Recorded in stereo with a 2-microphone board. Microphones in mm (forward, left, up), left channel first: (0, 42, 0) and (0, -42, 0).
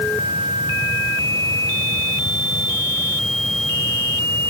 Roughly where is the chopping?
I don't hear chopping.